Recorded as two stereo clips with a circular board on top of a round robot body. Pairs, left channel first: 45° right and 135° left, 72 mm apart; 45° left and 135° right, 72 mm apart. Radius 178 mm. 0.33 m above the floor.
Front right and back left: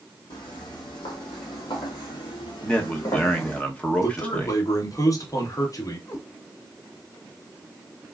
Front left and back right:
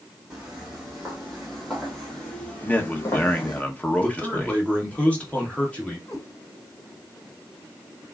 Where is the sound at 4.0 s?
25° right, 2 m.